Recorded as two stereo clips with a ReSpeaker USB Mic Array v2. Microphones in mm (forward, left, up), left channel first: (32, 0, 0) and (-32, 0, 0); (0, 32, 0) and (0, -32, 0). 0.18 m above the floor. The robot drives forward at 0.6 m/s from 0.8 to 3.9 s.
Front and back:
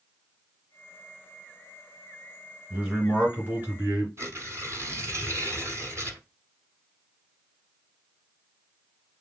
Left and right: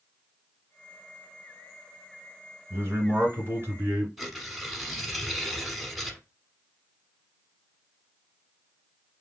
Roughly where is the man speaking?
Behind right.